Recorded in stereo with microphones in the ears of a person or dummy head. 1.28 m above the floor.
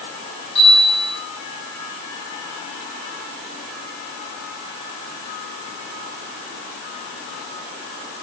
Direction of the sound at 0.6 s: 70° left (ahead or behind).